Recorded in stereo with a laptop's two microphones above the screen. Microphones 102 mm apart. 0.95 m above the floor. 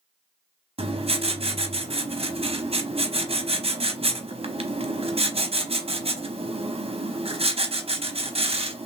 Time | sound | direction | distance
0.8 | writing | 65° right (ahead or behind) | 0.8 m